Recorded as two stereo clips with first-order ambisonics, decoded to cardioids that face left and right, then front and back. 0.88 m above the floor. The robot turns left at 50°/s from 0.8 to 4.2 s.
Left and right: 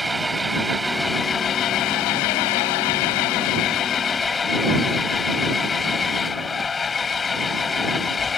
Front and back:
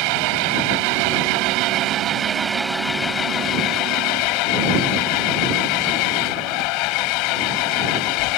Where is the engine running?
175° right; by 8.4 s 15° left.